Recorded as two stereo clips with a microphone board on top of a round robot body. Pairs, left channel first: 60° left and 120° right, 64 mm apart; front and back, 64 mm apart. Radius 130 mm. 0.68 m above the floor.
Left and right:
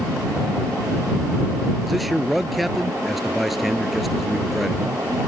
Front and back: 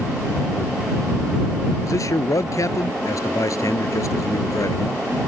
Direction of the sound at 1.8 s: 30° right.